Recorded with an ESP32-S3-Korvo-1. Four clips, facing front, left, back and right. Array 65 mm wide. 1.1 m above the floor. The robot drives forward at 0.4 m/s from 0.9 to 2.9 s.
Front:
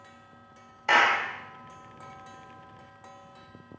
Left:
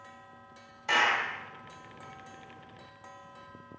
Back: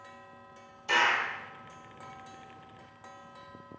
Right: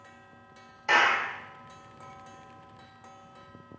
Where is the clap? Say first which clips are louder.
Right 3 dB, front 4 dB; 10° right, 2 m.